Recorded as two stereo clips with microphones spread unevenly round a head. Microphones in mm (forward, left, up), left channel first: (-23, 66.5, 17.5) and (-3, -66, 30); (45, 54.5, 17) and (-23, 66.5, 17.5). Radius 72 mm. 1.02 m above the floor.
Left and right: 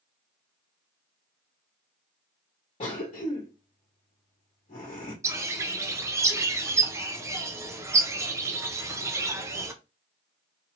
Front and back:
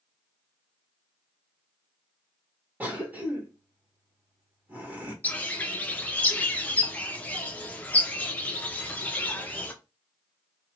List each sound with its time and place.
2.8 s a cough: 110° left, 1.1 m
5.2 s a bird: 35° right, 0.6 m